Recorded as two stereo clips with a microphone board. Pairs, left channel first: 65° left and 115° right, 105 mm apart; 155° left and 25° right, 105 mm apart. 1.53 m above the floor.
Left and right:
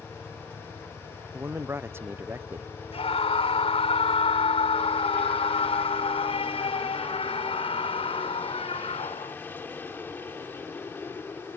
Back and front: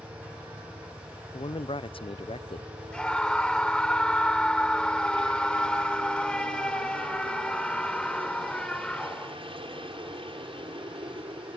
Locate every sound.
0.0 s a helicopter: 10° right; by 11.6 s straight ahead
1.3 s a man speaking: straight behind
2.9 s a scream: 75° left